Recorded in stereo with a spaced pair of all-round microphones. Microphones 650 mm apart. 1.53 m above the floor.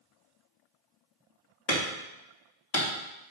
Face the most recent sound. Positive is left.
turn(degrees=70)  # may be behind; listen again after turning